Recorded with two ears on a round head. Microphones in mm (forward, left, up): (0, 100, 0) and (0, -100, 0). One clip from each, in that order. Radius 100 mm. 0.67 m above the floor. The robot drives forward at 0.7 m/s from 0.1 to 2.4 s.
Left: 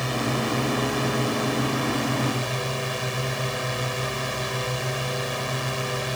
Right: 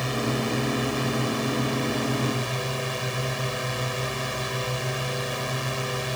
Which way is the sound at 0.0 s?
Centre (ahead or behind).